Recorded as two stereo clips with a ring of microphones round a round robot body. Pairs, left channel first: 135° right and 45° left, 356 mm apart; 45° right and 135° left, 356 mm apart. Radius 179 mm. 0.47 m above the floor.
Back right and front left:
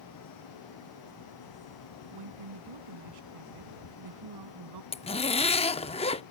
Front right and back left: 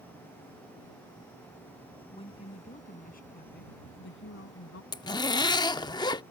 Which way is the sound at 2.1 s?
30° left.